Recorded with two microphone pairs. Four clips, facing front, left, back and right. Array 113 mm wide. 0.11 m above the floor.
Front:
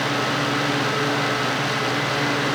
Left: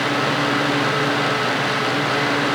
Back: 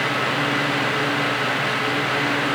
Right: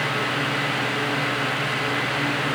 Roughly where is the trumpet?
No trumpet in this recording.